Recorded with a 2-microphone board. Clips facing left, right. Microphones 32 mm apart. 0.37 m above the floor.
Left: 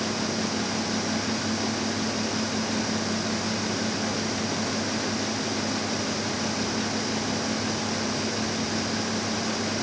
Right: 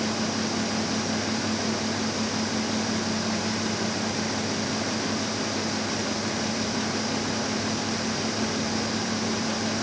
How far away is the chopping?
I don't hear chopping.